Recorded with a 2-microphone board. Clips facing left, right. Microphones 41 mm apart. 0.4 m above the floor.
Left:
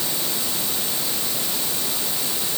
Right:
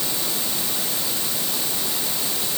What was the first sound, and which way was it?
Only background noise.